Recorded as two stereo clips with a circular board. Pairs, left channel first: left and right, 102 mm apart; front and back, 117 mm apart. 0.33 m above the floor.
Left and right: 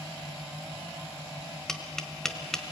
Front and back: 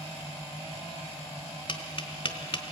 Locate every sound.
1.7 s tapping: 5° left, 1.3 m